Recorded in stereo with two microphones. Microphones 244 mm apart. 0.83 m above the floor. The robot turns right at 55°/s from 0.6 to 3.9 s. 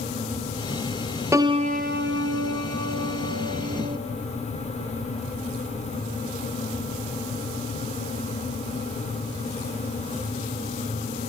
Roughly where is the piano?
Behind.